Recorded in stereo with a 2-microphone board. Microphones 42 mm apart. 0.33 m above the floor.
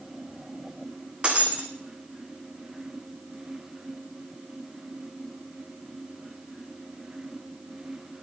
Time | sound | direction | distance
1.2 | breaking glass | 25° right (ahead or behind) | 1.8 m